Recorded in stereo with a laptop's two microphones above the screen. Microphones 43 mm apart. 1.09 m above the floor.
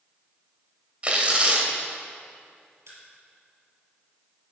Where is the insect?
No insect in this recording.